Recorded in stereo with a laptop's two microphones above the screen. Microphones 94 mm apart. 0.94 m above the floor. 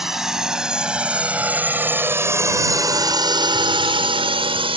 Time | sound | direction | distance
0.0 | a drone | 5° right (ahead or behind) | ?